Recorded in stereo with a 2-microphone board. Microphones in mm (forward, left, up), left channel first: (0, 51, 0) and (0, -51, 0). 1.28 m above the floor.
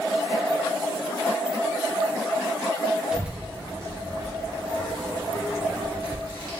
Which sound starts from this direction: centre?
A child speaking, at 3.1 s.